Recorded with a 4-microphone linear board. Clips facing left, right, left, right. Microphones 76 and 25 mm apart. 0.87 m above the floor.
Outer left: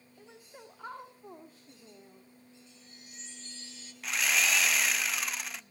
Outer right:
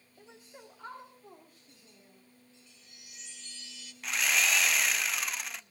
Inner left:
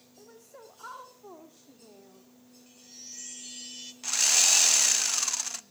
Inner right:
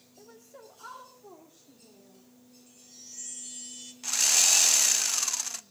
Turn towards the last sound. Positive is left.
turn(degrees=0)  # may be behind; listen again after turning